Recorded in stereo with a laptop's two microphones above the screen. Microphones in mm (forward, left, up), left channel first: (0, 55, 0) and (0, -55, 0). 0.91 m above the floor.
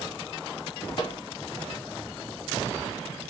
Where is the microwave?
50° left (ahead or behind), 0.8 m.